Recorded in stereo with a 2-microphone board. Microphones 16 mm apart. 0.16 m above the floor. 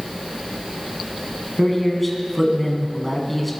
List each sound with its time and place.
1.6 s a man speaking: 5° left (ahead or behind), 1.4 m